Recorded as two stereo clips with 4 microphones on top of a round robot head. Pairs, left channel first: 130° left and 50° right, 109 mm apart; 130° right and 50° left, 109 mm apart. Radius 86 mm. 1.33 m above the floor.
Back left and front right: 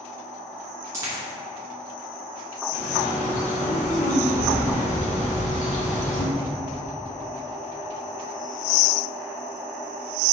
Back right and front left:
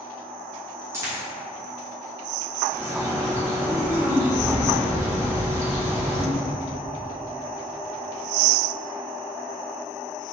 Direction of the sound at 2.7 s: 120° left.